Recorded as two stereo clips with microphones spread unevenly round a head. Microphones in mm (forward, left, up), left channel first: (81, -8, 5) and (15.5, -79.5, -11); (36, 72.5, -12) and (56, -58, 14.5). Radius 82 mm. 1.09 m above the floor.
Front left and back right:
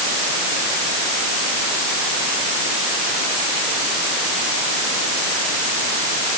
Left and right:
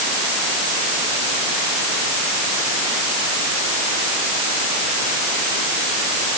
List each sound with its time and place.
Only background noise.